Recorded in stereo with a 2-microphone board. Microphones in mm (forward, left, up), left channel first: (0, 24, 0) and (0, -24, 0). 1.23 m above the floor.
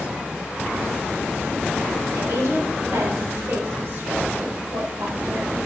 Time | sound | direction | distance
2.1 | a woman speaking | 75° right (ahead or behind) | 3 m